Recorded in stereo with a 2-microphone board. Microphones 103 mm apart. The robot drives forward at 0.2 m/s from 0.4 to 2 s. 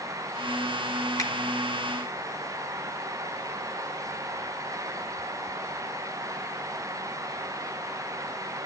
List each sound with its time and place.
1.2 s a finger snap: 35° left (ahead or behind), 3.5 m